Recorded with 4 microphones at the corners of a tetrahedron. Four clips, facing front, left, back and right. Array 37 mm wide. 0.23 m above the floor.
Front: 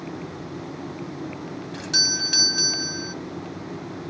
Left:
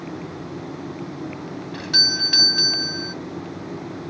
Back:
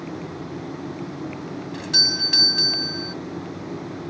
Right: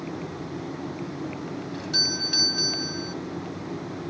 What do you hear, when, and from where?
1.7 s a doorbell: 100° left